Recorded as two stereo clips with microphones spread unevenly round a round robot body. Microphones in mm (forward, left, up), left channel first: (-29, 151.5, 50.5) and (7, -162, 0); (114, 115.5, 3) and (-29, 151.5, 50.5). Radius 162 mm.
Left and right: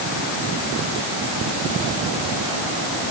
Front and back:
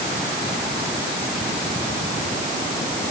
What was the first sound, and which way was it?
Only background noise.